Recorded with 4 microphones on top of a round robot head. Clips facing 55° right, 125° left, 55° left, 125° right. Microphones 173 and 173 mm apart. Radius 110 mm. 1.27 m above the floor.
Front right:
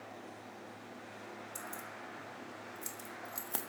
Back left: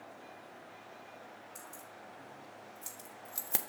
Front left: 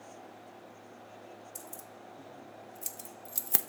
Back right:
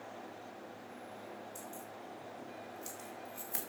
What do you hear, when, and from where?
1.6 s keys jangling: 5° left, 1.8 m; by 3.7 s 65° left, 0.6 m